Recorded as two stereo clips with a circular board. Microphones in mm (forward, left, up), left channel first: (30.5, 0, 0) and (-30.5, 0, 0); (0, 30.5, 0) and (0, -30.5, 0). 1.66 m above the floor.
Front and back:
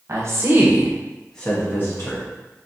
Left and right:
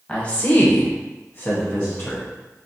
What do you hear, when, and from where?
0.1 s a woman speaking: 155° left, 1.0 m; by 2.2 s 30° left, 1.0 m